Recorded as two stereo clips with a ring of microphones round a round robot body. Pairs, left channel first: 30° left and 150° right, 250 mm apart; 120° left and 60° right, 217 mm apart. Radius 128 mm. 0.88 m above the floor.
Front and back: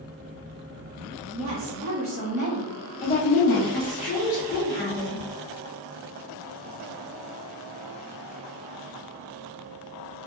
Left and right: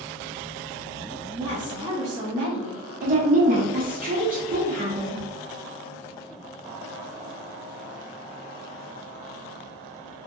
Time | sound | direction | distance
1.3 | a woman speaking | 140° right | 0.6 m
3.0 | a woman speaking | 25° right | 0.7 m